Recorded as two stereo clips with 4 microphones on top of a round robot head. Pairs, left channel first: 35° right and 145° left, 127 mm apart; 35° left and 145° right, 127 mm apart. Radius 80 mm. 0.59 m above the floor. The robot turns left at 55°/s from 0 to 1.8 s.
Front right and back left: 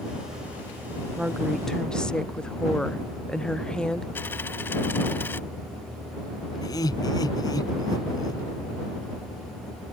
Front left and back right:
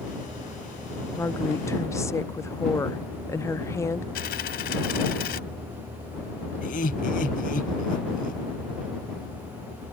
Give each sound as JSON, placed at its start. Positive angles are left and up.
{"t": 1.2, "sound": "a woman speaking", "azimuth_deg": 70}
{"t": 4.2, "sound": "a dropped coin", "azimuth_deg": 40}
{"t": 6.6, "sound": "laughter", "azimuth_deg": 25}